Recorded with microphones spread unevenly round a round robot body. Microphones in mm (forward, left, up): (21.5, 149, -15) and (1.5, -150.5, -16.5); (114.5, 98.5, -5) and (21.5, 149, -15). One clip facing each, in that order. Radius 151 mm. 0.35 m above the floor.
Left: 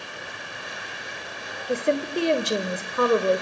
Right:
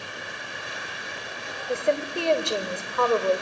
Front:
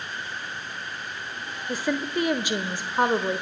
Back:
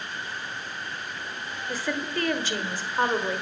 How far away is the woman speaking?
About 1.1 m.